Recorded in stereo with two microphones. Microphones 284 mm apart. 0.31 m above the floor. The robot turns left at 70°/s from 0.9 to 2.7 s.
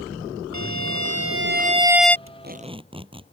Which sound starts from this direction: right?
A violin, at 0.5 s.